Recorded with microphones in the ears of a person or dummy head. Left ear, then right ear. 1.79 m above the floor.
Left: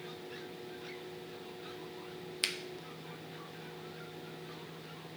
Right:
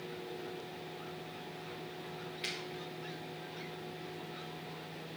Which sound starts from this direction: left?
A finger snap, at 2.4 s.